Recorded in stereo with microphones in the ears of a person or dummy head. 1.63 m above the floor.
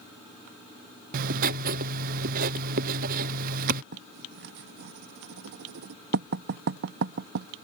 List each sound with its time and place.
1.1 s writing: 50° right (ahead or behind)
3.9 s writing: 55° right (ahead or behind)